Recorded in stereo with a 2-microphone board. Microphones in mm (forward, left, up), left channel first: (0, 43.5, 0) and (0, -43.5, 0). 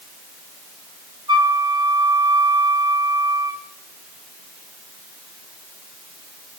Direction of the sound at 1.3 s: 60° right (ahead or behind).